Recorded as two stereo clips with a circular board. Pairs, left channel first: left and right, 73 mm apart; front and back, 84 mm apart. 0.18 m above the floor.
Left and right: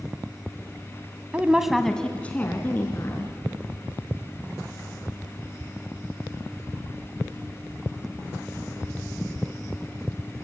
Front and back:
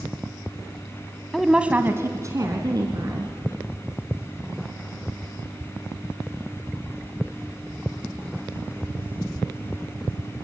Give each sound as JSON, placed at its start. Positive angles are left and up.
{"t": 1.3, "sound": "a woman speaking", "azimuth_deg": -80, "distance_m": 1.1}